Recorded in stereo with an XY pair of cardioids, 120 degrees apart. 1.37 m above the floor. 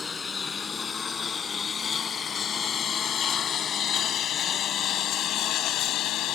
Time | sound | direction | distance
0.0 | a lawn mower | 25° left | ?